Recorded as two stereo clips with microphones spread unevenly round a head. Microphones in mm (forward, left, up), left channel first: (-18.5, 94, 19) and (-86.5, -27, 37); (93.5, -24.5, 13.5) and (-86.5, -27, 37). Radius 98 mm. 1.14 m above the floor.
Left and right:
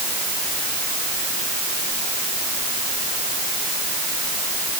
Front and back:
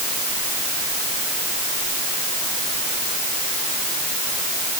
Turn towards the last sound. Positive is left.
No sound to turn to.